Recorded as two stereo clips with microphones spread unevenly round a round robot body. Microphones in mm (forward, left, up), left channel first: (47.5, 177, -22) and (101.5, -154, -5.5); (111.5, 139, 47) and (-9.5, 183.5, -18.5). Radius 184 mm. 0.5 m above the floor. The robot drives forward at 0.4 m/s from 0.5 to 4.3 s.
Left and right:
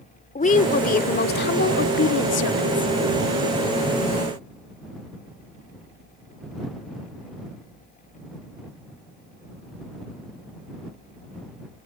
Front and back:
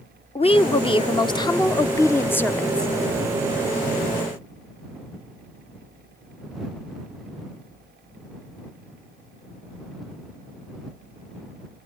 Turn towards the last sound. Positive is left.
turn(degrees=135)